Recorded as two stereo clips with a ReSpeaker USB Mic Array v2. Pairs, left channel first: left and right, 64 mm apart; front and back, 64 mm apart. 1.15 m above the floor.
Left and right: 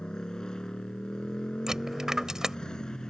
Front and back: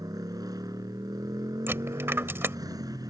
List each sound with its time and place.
0.0 s a motorcycle: 170° left
1.7 s a dropped coin: 165° right